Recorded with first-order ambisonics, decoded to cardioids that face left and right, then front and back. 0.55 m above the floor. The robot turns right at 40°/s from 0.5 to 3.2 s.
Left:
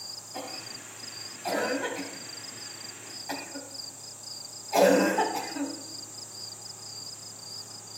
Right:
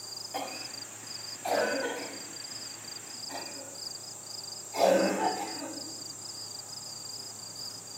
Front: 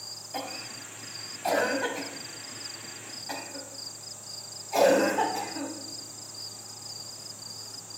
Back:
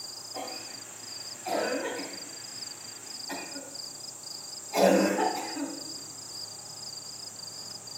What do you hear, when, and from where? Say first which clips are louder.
0.3 s a cough: right 3 dB, front 3 dB; 45° right, 3.5 m; by 5.7 s 65° left, 3.5 m